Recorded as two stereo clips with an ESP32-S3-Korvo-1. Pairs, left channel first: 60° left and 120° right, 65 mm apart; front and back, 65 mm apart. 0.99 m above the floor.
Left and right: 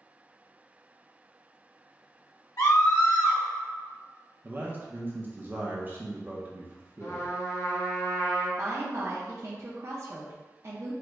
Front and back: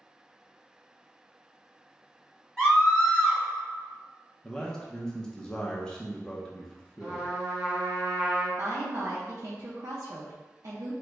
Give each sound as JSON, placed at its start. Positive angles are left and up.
{"t": 2.6, "sound": "a scream", "azimuth_deg": 75, "distance_m": 1.9}
{"t": 4.4, "sound": "a man speaking", "azimuth_deg": -75, "distance_m": 0.8}
{"t": 7.0, "sound": "a trumpet", "azimuth_deg": 95, "distance_m": 1.9}
{"t": 8.6, "sound": "a woman speaking", "azimuth_deg": -160, "distance_m": 0.7}